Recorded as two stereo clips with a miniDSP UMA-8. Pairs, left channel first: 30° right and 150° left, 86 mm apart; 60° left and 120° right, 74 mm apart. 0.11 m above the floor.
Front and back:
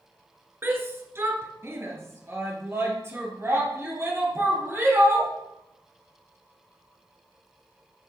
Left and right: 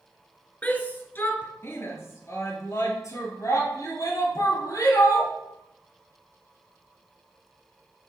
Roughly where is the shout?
Behind left.